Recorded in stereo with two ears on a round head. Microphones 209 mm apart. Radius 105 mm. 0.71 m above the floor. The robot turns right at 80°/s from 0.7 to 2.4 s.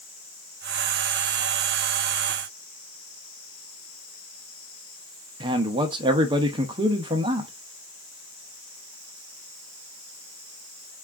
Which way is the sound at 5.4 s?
20° right (ahead or behind).